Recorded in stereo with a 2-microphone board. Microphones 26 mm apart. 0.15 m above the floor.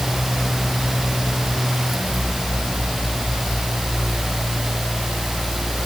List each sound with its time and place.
Only background noise.